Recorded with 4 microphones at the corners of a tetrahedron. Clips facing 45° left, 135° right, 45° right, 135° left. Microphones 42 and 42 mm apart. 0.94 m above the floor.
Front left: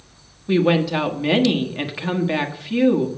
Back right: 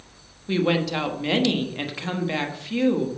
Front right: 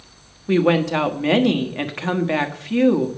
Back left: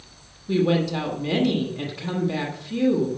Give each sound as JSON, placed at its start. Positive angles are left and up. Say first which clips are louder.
{"t": 0.5, "sound": "a woman speaking", "louder": "front left 5 dB, front right 4 dB", "azimuth_deg": -35, "distance_m": 1.2}